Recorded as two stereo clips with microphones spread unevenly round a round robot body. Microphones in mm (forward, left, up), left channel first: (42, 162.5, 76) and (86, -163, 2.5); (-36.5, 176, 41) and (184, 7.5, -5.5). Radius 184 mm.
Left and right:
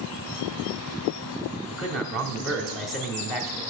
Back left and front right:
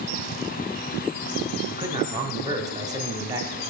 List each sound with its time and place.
1.7 s a man speaking: 25° right, 1.3 m